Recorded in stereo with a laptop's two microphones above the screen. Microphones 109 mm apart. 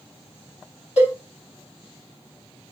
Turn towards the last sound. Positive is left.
turn(degrees=65)  # may be behind; listen again after turning